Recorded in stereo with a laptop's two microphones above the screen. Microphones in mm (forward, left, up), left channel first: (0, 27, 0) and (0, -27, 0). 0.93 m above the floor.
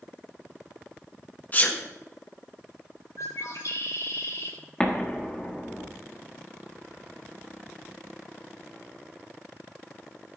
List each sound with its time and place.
1.5 s a sneeze: 30° left (ahead or behind), 1.5 m
3.2 s a bird: 75° left (ahead or behind), 3 m
4.8 s an explosion: 15° left (ahead or behind), 1.6 m